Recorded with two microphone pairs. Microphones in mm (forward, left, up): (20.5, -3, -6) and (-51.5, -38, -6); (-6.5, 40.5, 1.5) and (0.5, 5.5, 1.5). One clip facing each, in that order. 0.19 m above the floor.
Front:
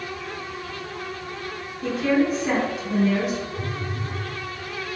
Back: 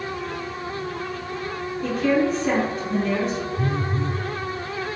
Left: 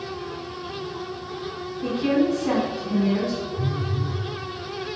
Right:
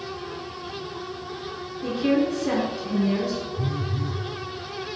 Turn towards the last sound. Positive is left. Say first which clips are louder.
# back 5 dB, left 1 dB
turn(degrees=-110)